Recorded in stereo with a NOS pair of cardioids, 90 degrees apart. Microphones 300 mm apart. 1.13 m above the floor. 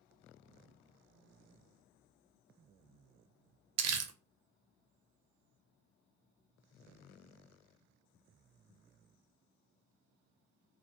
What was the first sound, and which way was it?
Crumpling, 60° right.